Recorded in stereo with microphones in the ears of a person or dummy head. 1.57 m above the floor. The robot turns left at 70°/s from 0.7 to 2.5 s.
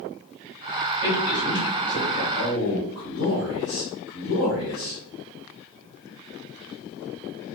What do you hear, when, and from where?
1.0 s a man speaking: 25° right (ahead or behind), 1.8 m; by 2.2 s 60° left (ahead or behind), 1.8 m
2.3 s a man speaking: 70° left (ahead or behind), 0.8 m; by 5.0 s 80° left, 0.8 m